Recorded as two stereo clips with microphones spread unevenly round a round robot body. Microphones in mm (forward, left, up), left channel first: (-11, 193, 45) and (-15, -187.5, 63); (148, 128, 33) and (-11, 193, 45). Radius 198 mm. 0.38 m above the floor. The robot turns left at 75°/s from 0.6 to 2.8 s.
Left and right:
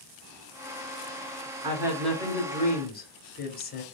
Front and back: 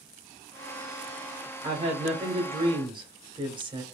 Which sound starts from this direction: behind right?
A woman speaking, at 1.6 s.